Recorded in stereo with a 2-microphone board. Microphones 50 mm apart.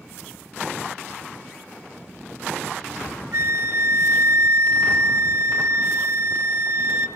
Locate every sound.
3.3 s a flute: 60° right (ahead or behind), 1.1 m